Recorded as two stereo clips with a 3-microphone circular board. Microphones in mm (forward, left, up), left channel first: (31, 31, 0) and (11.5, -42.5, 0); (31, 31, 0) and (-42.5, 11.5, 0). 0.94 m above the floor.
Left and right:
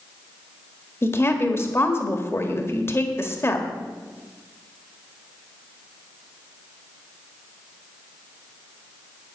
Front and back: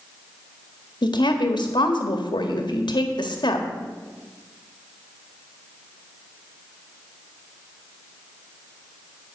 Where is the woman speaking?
20° left, 1.6 m.